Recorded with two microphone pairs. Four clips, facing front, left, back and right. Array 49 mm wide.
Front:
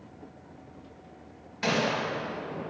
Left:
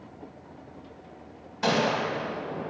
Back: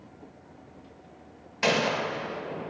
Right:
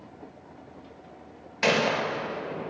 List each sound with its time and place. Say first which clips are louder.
1.6 s a gunshot: right 1 dB, back 2 dB; 135° right, 2 m